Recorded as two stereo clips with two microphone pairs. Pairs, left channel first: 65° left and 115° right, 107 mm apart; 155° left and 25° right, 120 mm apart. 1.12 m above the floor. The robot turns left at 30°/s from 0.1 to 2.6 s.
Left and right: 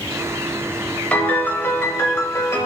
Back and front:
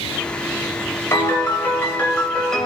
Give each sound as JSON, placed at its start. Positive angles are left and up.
{"t": 1.1, "sound": "a piano", "azimuth_deg": 120, "distance_m": 1.0}